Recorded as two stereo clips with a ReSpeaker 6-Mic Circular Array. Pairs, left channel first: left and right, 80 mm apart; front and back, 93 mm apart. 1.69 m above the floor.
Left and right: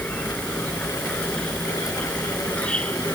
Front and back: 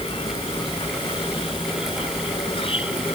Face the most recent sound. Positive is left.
turn(degrees=15)